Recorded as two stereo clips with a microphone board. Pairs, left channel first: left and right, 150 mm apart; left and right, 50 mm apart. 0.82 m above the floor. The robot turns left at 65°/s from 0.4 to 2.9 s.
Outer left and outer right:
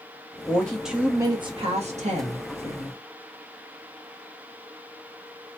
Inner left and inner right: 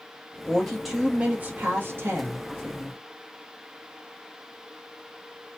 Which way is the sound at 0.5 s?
20° left.